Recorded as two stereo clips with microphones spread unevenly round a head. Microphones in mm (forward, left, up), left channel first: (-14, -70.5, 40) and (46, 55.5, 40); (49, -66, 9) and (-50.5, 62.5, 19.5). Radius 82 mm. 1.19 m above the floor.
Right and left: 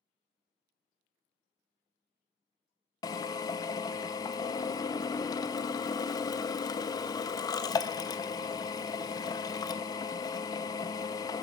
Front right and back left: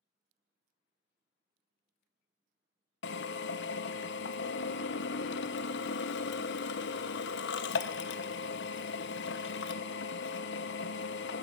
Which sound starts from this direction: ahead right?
A drill, at 3.0 s.